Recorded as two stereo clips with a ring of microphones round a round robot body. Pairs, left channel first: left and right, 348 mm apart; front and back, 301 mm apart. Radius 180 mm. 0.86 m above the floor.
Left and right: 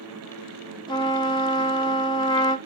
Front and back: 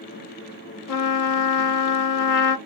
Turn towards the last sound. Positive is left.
turn(degrees=15)